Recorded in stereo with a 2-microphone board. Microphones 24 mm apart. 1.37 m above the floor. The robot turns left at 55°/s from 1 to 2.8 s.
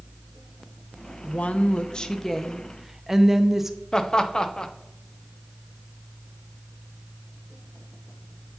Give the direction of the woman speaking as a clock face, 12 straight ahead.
10 o'clock.